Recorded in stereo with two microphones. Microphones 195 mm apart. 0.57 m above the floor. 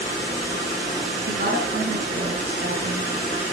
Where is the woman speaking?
55° right (ahead or behind), 5 m.